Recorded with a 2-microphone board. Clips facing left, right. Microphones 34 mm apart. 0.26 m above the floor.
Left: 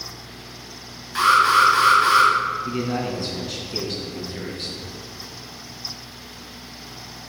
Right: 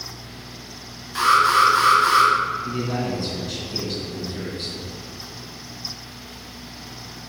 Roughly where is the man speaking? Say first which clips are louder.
Even; centre.